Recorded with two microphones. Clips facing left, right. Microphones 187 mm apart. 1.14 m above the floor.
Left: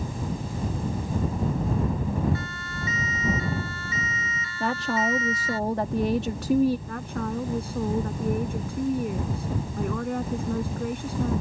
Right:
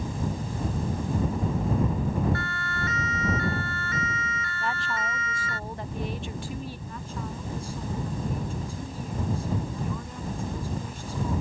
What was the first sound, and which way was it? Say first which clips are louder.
A siren: right 1 dB; 60° right (ahead or behind).